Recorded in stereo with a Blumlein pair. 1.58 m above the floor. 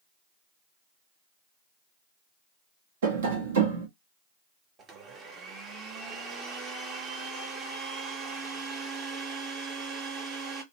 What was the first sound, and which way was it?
Tapping, 60° right.